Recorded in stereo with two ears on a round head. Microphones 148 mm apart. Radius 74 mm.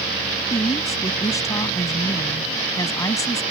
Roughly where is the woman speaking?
Left.